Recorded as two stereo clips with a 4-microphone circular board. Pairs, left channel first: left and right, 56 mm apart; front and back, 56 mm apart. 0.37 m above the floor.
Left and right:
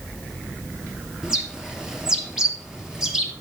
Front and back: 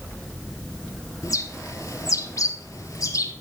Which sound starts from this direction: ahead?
A bird, at 1.2 s.